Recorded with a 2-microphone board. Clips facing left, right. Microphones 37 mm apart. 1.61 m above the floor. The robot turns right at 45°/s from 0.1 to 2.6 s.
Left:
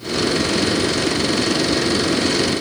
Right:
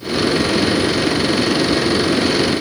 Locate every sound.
Only background noise.